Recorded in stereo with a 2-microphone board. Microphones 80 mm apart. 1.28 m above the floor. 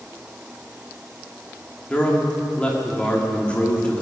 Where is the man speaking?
15° left (ahead or behind), 2.5 m.